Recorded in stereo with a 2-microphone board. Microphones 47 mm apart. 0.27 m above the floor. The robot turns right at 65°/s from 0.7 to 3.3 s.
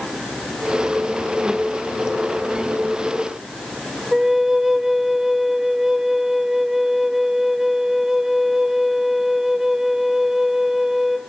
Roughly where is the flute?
Centre.